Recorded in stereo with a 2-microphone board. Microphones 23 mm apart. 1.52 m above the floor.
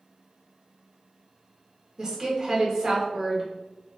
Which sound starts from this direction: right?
A woman speaking, at 2.0 s.